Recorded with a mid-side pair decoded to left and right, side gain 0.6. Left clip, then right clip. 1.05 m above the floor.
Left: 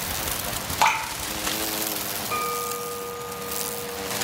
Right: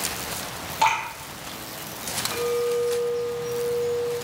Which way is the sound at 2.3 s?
50° left.